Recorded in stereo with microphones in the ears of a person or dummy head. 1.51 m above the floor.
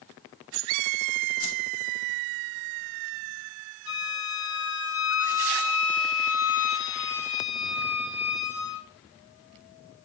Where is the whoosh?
75° left (ahead or behind), 1.6 m.